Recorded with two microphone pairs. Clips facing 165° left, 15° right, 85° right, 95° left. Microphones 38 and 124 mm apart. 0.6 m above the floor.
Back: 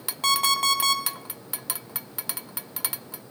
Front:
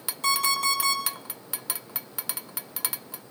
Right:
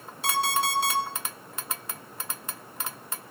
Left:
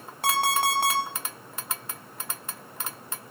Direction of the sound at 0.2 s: 125° left.